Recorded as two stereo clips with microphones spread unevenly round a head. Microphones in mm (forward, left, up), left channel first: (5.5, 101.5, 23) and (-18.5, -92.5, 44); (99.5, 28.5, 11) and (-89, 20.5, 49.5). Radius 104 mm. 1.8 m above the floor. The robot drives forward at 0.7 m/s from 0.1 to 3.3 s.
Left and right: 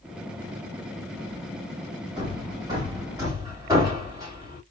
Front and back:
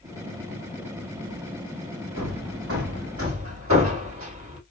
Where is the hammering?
165° right, 2.5 m; by 4.6 s 170° right, 3 m.